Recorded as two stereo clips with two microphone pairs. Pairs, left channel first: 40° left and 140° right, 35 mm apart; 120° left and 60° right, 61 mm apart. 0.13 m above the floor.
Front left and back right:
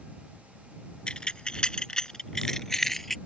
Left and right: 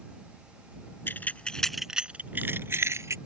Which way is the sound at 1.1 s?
95° left.